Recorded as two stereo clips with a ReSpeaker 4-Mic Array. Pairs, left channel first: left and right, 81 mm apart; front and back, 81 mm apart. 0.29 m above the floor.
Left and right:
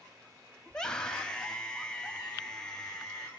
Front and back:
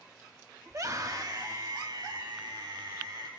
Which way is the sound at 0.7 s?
165° left.